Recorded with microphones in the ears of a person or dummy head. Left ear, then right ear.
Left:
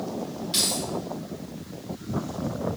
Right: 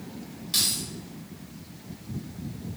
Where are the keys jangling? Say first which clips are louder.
Even; 5° right (ahead or behind), 1.8 m.